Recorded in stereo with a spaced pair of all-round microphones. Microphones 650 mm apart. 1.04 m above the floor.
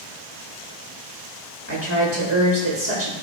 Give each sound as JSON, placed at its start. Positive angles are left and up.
{"t": 1.7, "sound": "a woman speaking", "side_deg": -20, "distance_m": 1.6}